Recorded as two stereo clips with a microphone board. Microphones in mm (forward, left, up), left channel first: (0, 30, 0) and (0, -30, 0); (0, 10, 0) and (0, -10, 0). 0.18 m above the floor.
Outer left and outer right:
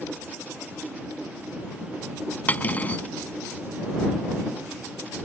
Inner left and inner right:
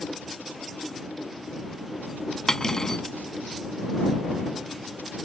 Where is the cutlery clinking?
30° left (ahead or behind).